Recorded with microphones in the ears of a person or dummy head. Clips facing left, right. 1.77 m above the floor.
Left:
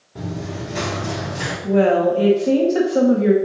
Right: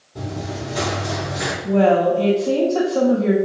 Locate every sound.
0.1 s running footsteps: 20° left (ahead or behind), 1.9 m; by 1.5 s 50° left (ahead or behind), 3 m
1.6 s a woman speaking: 20° left (ahead or behind), 0.5 m